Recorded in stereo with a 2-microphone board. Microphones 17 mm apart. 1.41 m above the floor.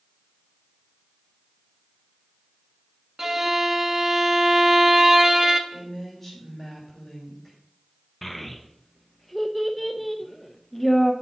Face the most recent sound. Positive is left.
turn(degrees=10)  # may be behind; listen again after turning